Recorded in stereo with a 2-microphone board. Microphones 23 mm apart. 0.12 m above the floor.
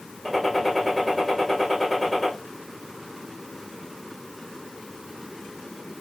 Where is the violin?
No violin in this recording.